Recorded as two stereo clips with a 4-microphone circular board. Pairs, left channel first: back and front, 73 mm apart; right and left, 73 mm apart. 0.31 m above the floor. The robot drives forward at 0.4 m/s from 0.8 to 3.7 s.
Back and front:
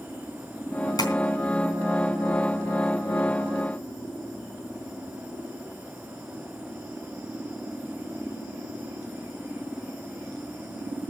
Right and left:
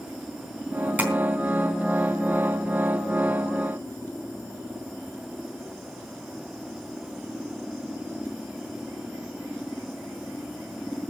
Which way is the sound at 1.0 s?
160° left.